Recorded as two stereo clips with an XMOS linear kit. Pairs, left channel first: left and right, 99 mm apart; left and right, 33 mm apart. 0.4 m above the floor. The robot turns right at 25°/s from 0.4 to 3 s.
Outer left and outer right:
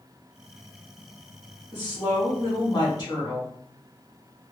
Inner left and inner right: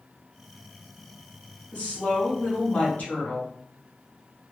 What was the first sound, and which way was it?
A woman speaking, 65° left.